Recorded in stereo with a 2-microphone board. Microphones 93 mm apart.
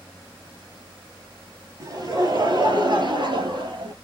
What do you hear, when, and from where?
1.8 s laughter: 45° right (ahead or behind), 2.5 m; by 3.9 s 60° right (ahead or behind), 1.9 m